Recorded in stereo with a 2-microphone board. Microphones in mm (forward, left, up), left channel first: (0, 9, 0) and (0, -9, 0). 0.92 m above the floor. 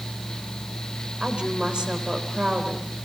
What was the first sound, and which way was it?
A woman speaking, 75° right (ahead or behind).